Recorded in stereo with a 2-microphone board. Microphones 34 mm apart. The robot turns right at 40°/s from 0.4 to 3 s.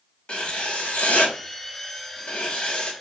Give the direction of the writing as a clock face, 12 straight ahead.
11 o'clock.